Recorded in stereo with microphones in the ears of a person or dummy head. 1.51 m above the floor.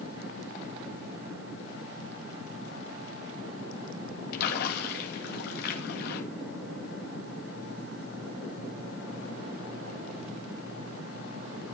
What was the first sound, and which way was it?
A splash, 55° left (ahead or behind).